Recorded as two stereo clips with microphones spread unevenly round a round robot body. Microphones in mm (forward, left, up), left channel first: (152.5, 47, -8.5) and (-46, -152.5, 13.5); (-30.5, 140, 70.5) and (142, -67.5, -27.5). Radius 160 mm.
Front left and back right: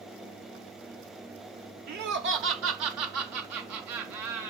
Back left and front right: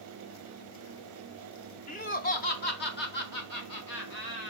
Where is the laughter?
155° right, 0.8 m; by 4.5 s 170° right, 1.8 m.